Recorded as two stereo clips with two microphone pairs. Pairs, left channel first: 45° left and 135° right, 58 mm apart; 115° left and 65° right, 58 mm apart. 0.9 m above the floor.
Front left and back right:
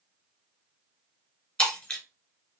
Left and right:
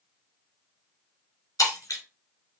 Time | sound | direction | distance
1.6 | breaking glass | 120° left | 2.0 m